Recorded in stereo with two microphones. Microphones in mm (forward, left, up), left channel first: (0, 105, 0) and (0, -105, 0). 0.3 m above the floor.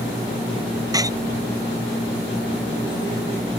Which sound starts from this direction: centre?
A door slam, at 0.9 s.